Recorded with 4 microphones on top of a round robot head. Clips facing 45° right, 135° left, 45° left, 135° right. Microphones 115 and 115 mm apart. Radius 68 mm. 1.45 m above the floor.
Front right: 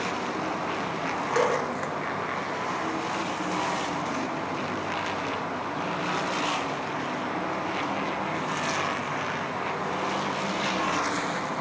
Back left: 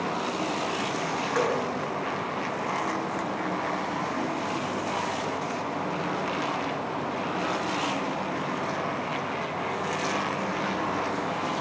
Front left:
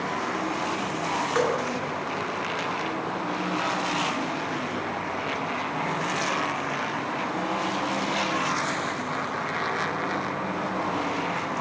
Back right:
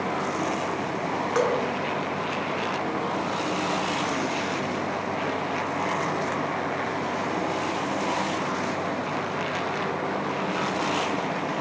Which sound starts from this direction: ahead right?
Dripping, at 1.4 s.